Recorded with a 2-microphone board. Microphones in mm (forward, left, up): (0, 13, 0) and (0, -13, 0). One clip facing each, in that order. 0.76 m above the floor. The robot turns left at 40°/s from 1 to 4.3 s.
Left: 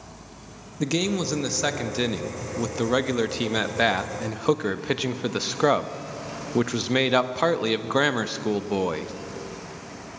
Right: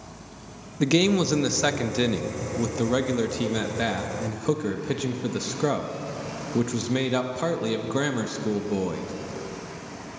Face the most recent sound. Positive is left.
turn(degrees=30)  # may be behind; listen again after turning